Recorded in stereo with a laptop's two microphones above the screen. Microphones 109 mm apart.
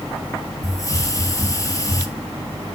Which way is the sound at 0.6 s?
30° left (ahead or behind).